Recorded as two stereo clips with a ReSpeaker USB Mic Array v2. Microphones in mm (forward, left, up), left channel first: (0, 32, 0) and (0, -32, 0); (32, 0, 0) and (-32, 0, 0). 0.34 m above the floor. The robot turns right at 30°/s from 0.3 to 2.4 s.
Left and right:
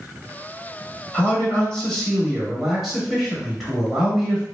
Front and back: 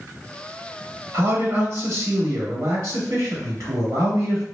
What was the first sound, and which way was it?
A man speaking, 150° left.